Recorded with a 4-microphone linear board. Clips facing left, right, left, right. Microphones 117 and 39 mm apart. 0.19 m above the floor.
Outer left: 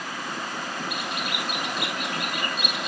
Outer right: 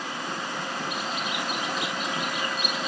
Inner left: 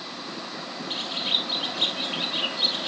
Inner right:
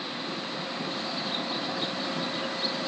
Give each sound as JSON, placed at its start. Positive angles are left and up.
{"t": 0.9, "sound": "a bird", "side_deg": 60}